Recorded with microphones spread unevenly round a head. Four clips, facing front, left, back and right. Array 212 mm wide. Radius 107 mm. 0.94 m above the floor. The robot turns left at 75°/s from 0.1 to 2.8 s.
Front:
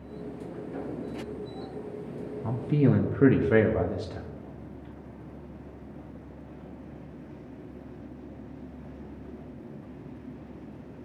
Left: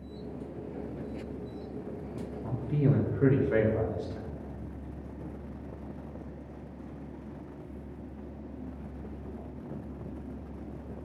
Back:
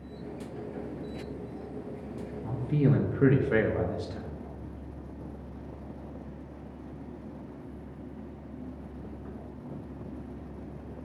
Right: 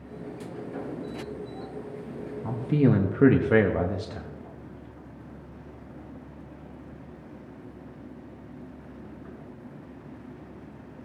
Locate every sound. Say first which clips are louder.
2.4 s a man speaking: right 6 dB, front 3 dB; 50° right, 1.1 m; by 4.3 s 75° right, 1.1 m